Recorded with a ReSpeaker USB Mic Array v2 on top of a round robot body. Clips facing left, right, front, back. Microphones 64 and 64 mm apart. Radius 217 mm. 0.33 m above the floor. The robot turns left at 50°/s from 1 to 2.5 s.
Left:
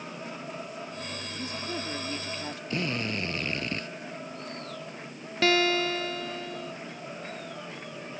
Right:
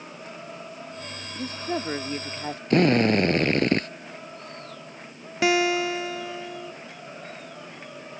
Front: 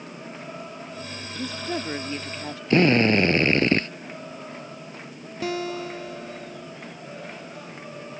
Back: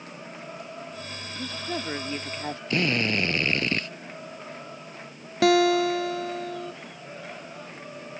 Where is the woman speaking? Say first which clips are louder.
Right 7 dB, front 3 dB; 75° right; by 2.6 s 130° right.